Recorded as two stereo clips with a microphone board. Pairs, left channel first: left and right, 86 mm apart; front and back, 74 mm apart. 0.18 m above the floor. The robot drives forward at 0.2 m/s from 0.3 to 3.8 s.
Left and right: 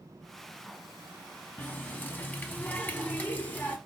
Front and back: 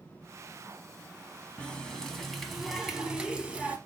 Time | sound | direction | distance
1.6 | a running tap | 55° left | 0.7 m